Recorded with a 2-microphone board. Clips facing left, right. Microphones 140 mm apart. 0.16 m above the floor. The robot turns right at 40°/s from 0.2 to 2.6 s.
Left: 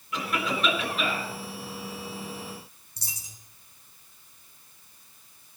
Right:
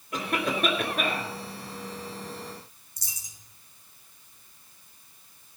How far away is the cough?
About 3 m.